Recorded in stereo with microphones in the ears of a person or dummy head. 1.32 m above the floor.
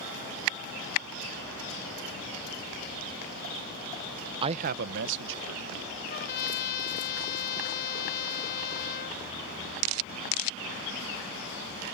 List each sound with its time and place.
4.4 s a man speaking: 30° right (ahead or behind); by 5.9 s 80° right
6.1 s a trumpet: 50° left (ahead or behind)